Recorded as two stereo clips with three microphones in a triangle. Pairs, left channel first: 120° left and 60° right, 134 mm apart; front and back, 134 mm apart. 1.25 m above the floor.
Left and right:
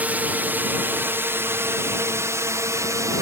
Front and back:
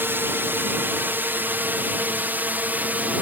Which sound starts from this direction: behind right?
A drone, at 0.0 s.